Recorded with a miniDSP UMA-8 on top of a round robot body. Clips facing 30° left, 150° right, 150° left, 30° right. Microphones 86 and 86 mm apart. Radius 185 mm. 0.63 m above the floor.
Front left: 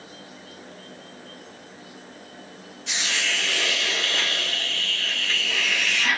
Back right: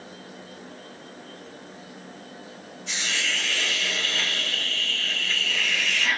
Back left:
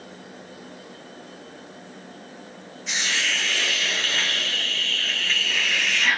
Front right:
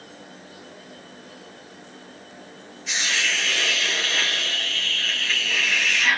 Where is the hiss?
60° left, 0.9 m.